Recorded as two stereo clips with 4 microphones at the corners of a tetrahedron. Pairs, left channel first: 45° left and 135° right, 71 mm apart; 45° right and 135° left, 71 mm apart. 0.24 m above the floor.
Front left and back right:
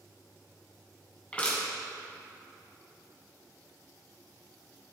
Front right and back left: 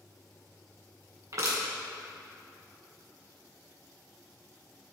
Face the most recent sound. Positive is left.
turn(degrees=115)